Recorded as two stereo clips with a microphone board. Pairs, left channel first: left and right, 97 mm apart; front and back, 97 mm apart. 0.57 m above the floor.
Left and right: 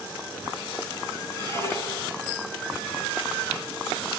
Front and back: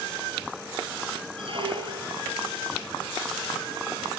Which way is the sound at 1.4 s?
150° left.